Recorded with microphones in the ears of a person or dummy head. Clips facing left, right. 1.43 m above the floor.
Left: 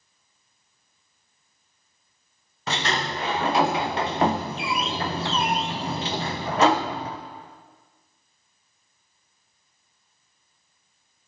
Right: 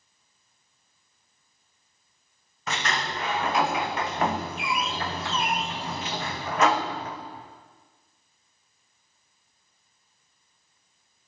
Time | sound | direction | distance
2.7 | a sliding door | 30° left (ahead or behind) | 0.6 m